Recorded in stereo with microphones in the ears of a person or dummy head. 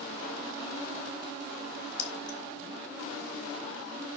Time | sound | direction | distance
2.0 | keys jangling | 65° left (ahead or behind) | 1.7 m